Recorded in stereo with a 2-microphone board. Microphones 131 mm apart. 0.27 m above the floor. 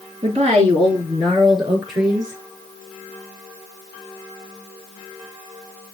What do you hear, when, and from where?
0.2 s a woman speaking: 50° right (ahead or behind), 3.5 m; by 2.4 s 25° right (ahead or behind), 3.5 m